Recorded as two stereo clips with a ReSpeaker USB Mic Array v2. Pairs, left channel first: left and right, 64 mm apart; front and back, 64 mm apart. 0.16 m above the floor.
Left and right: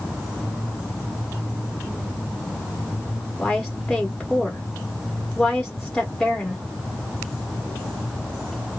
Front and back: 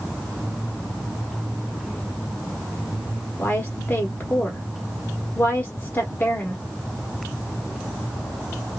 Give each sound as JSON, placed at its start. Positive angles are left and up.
{"t": 3.4, "sound": "a woman speaking", "azimuth_deg": 10, "distance_m": 1.1}